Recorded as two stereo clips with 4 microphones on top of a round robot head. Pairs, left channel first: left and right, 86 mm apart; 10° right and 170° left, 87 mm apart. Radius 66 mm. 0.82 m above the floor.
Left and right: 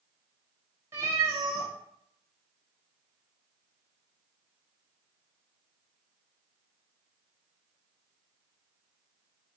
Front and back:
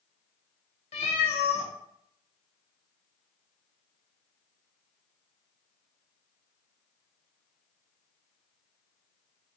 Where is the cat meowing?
20° right, 0.5 m.